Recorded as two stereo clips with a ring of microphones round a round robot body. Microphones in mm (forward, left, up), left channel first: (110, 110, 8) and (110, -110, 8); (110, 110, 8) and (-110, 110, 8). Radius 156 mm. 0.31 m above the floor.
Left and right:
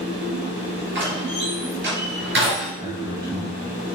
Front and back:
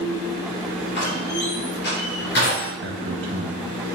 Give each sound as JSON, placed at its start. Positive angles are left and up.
{"t": 0.9, "sound": "a door slam", "azimuth_deg": -55, "distance_m": 4.0}
{"t": 2.8, "sound": "a man speaking", "azimuth_deg": -165, "distance_m": 1.8}